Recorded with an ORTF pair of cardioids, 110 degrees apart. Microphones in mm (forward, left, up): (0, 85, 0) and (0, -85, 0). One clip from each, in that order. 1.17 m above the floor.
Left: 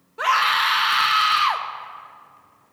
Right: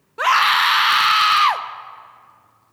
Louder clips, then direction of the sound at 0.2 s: Right 4 dB; 25° right.